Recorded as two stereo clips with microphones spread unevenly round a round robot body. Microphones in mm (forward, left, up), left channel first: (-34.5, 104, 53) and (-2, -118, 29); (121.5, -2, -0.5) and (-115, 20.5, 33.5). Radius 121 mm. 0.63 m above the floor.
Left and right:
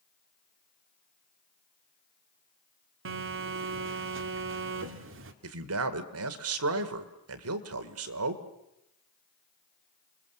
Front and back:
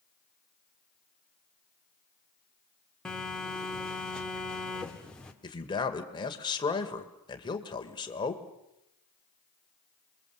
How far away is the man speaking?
About 1.9 m.